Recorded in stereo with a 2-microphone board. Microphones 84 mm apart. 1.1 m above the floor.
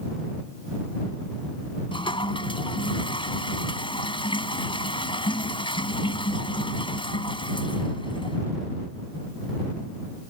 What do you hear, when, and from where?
1.9 s a toilet flushing: 80° left